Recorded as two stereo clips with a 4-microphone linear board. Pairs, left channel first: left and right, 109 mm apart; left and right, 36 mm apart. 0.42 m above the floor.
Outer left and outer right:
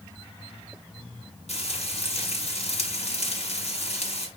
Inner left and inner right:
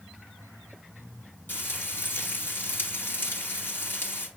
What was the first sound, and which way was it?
Frying, 85° left.